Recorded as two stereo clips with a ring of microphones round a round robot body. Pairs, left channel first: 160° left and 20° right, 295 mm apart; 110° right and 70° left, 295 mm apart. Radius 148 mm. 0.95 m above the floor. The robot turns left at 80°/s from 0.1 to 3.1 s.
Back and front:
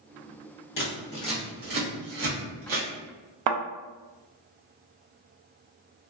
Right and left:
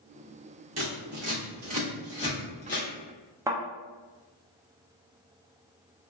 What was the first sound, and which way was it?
Scissors, 110° left.